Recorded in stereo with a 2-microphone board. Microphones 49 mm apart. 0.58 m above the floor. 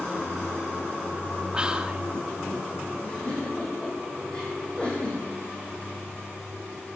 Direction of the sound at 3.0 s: 20° left (ahead or behind).